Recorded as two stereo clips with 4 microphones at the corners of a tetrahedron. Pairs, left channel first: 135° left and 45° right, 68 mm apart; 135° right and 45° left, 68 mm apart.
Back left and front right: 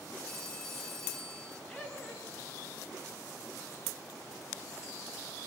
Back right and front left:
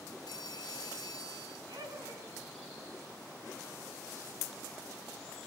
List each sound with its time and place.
0.3 s a phone ringing: 145° right, 4 m
1.7 s laughter: 55° left, 4.5 m